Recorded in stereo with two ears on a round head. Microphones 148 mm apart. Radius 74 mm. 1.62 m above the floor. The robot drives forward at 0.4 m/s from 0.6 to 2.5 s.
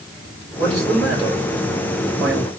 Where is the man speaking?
15° right (ahead or behind), 2.5 m; by 2.5 s 10° right (ahead or behind), 3 m.